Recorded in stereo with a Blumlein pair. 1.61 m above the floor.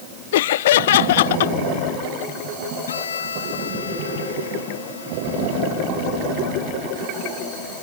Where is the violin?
70° left.